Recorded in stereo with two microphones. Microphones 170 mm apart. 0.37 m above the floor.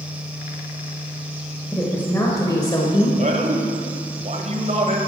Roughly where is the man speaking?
Right.